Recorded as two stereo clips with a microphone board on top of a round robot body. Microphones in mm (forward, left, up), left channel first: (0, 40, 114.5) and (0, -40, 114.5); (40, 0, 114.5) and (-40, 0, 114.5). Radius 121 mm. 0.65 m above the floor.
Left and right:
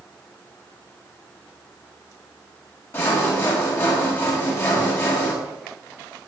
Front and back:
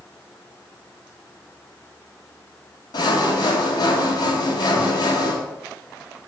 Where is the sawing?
30° left, 5 m.